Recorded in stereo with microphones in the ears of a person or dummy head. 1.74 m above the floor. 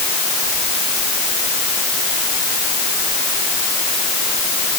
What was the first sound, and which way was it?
Only background noise.